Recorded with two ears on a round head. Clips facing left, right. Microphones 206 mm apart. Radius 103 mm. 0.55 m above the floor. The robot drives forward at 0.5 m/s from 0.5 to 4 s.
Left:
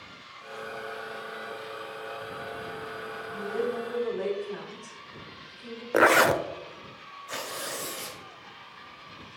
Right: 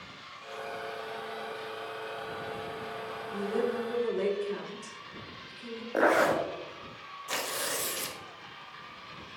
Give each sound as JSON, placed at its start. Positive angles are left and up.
{"t": 3.3, "sound": "a woman speaking", "side_deg": -40, "distance_m": 1.5}
{"t": 5.9, "sound": "a zipper", "side_deg": 80, "distance_m": 0.6}
{"t": 7.3, "sound": "tearing paper", "side_deg": -45, "distance_m": 1.4}